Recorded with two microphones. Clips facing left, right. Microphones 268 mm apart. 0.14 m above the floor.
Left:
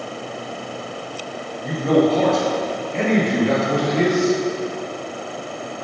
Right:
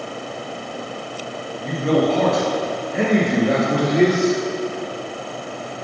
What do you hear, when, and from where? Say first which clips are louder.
1.6 s a man speaking: left 2 dB; 10° left (ahead or behind), 2.5 m; by 4.3 s 20° right (ahead or behind), 3 m